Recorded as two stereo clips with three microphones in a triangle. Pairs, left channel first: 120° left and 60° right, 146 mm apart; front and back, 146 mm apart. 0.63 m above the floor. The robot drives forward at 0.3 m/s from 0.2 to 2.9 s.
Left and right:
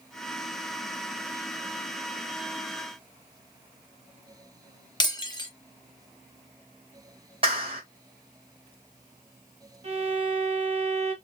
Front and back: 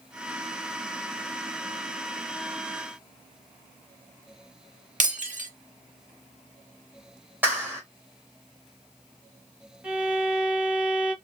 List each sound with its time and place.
5.0 s breaking glass: 175° left, 0.6 m
7.4 s a clap: 105° right, 1.3 m
9.8 s a violin: 100° right, 0.8 m